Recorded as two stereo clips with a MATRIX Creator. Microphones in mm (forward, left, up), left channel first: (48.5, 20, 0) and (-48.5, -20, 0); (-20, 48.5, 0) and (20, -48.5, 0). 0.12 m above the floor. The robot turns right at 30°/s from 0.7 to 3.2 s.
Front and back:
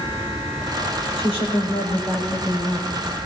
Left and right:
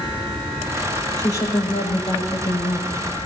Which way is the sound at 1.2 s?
50° left.